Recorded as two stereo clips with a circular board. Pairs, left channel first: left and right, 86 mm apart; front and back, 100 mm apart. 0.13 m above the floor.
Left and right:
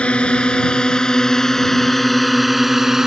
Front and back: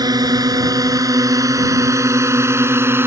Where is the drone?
165° left; by 3.1 s 165° right.